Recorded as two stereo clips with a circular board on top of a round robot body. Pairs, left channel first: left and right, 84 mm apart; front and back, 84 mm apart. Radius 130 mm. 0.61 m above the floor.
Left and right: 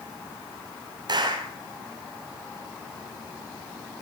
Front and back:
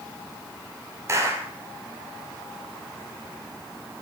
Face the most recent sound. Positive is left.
turn(degrees=-125)